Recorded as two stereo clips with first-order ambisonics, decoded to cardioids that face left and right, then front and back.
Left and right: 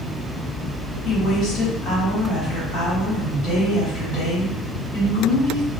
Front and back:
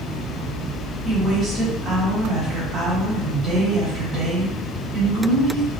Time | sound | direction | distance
1.1 | a woman speaking | 120° left | 1.7 m